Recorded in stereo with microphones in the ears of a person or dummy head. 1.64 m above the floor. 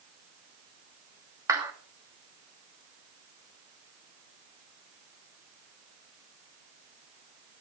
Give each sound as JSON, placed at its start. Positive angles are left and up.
{"t": 1.5, "sound": "a clap", "side_deg": -15, "distance_m": 1.6}